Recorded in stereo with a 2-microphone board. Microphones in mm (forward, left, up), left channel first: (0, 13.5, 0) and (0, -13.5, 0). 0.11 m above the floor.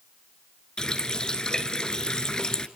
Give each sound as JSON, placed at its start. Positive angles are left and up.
{"t": 0.8, "sound": "a running tap", "side_deg": 30, "distance_m": 1.2}